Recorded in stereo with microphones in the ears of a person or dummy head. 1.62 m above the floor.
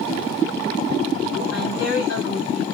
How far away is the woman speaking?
About 1.5 m.